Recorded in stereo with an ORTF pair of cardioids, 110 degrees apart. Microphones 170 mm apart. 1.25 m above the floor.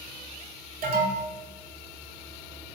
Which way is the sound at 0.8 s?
65° right.